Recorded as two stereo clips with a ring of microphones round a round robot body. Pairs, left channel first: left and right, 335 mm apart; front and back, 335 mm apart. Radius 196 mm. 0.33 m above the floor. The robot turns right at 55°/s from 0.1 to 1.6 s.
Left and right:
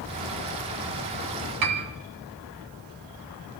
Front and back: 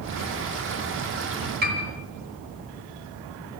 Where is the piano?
115° right, 2.5 m.